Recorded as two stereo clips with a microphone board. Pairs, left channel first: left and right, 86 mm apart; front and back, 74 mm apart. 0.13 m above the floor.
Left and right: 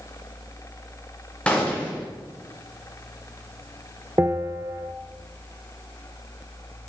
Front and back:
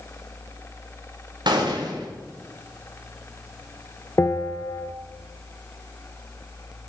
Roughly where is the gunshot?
Behind.